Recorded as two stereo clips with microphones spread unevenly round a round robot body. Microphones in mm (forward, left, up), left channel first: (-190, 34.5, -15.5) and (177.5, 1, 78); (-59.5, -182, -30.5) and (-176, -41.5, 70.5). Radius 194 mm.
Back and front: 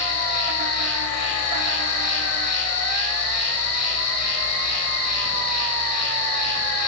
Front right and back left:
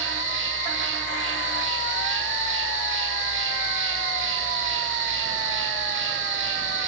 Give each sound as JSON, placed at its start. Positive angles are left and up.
{"t": 0.0, "sound": "an insect", "azimuth_deg": 125, "distance_m": 3.5}